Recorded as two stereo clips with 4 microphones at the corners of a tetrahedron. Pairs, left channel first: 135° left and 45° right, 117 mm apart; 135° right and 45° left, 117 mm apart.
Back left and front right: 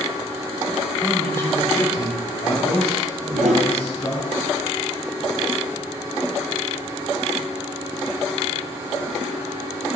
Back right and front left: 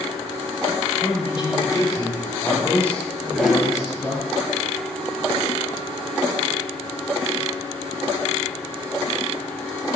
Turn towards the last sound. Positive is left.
turn(degrees=-45)